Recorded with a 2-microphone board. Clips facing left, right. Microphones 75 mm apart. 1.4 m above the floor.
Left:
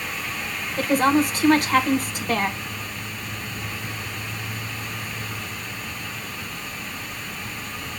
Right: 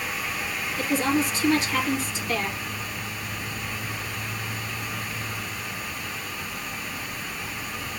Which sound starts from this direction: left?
A woman speaking, at 0.8 s.